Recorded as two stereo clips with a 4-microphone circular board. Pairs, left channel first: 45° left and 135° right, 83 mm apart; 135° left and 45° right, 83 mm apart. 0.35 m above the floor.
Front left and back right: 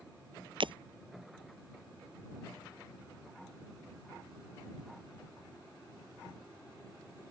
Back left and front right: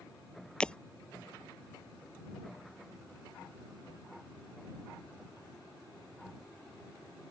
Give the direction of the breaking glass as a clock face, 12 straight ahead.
5 o'clock.